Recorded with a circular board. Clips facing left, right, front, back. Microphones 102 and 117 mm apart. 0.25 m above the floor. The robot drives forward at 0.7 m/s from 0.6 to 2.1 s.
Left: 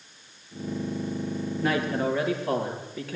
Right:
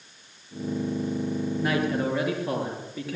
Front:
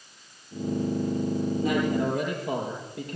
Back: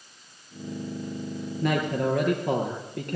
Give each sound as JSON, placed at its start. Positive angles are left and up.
{"t": 1.6, "sound": "a man speaking", "azimuth_deg": -175, "distance_m": 5.5}